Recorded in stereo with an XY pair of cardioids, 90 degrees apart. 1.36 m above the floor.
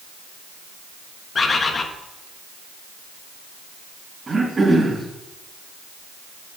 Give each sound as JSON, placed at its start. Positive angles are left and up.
{"t": 1.4, "sound": "a bird", "azimuth_deg": 45, "distance_m": 1.2}
{"t": 4.3, "sound": "throat clearing", "azimuth_deg": -30, "distance_m": 4.0}